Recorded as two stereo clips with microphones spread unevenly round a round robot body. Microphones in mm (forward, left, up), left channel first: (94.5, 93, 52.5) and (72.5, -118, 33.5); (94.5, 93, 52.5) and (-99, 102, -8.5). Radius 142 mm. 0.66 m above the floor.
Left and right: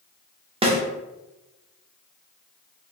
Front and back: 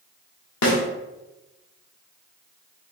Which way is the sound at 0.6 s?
35° right.